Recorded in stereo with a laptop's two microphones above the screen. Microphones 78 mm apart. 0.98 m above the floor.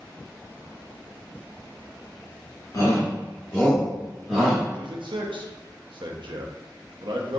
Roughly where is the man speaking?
Right.